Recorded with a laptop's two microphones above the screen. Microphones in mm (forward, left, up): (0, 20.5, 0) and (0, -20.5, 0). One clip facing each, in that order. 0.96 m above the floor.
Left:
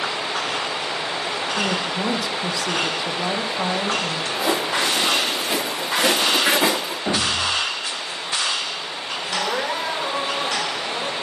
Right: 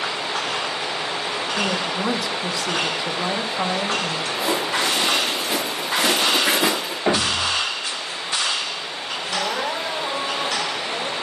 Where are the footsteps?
80° left, 5 m; by 7.0 s 60° left (ahead or behind), 4 m.